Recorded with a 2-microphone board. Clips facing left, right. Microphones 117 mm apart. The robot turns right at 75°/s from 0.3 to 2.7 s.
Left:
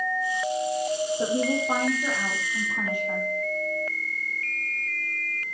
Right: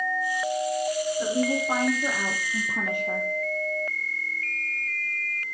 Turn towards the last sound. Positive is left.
turn(degrees=-115)